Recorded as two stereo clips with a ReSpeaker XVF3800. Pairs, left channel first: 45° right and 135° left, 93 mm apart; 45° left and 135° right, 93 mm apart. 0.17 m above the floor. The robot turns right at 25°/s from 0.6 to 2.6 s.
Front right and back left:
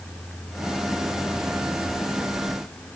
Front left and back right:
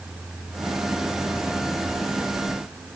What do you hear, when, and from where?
Only background noise.